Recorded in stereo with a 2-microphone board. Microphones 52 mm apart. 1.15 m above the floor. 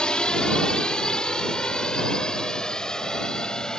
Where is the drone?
15° left (ahead or behind); by 3.8 s 10° left (ahead or behind).